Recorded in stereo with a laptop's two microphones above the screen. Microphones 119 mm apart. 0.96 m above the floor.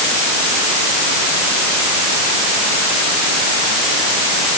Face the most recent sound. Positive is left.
No sound to turn to.